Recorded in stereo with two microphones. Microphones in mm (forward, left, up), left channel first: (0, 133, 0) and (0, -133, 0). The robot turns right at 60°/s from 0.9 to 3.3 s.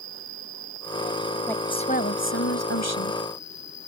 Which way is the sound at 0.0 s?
100° right.